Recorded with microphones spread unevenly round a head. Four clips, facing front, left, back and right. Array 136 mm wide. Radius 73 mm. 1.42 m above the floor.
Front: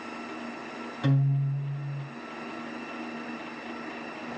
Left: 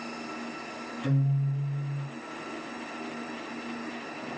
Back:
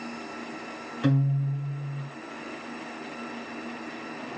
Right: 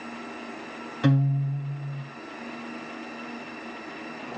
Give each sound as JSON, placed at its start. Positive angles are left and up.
{"t": 1.0, "sound": "a guitar", "azimuth_deg": -95, "distance_m": 2.0}